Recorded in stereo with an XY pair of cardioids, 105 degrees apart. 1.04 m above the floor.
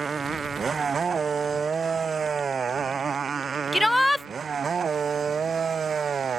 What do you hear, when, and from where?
0.0 s a motorcycle: 35° right; by 6.4 s 40° right
3.7 s a shout: 10° left